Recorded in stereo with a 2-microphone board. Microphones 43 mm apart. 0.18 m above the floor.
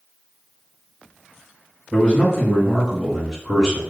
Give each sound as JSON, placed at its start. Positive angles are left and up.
{"t": 1.9, "sound": "a man speaking", "side_deg": 20, "distance_m": 1.1}